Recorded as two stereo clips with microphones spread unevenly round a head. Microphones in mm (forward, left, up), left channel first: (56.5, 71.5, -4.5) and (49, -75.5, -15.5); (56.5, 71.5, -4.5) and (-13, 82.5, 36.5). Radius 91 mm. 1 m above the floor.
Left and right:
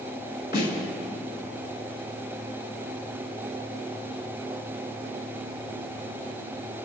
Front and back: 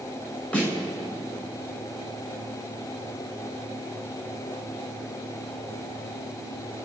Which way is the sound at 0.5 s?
70° left.